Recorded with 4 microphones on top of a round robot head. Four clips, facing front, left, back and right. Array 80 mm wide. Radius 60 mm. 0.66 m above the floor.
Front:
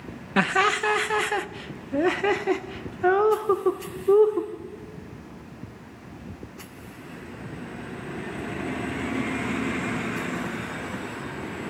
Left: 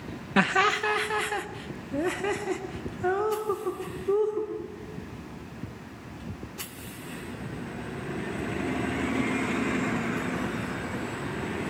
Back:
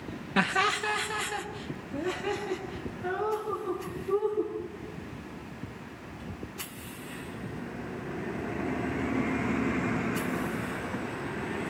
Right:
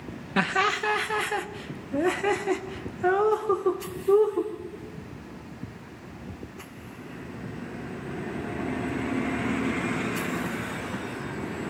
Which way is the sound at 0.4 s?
30° left.